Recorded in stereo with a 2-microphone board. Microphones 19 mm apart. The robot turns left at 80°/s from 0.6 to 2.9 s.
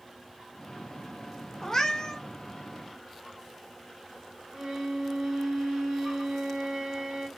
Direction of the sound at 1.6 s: 130° left.